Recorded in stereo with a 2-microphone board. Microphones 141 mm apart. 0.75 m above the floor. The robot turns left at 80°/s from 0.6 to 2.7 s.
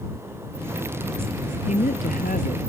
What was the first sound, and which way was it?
A woman speaking, 125° left.